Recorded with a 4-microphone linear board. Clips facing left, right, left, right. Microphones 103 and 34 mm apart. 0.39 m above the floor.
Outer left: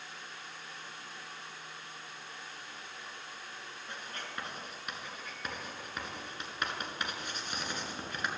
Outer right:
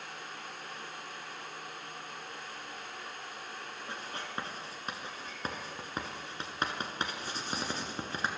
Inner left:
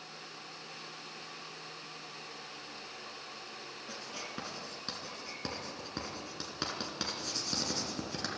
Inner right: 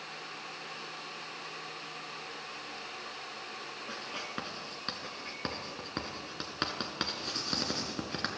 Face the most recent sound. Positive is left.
turn(degrees=-30)  # may be behind; listen again after turning